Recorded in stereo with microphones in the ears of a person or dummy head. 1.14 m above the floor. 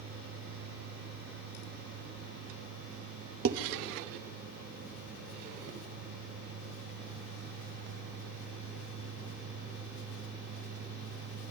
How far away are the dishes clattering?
About 0.6 m.